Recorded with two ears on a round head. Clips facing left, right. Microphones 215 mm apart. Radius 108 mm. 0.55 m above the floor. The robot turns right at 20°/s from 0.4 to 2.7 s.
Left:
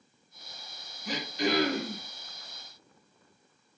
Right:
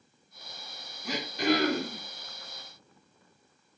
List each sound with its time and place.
1.1 s throat clearing: 55° right (ahead or behind), 1.9 m; by 2.0 s 35° right (ahead or behind), 1.9 m